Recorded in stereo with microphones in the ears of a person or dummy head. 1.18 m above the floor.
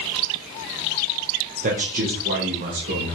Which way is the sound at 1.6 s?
40° right (ahead or behind).